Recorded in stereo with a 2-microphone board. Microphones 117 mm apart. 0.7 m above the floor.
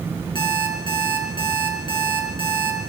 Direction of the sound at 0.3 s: 45° left (ahead or behind).